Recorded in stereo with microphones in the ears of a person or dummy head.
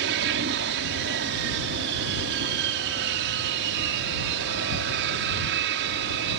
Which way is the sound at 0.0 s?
70° right (ahead or behind).